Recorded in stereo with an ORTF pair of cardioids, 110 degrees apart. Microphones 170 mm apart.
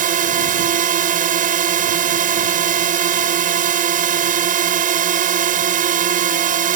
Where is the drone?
50° right.